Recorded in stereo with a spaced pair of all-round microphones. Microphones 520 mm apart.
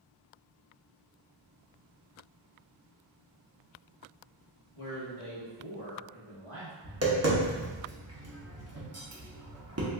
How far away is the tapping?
About 0.7 m.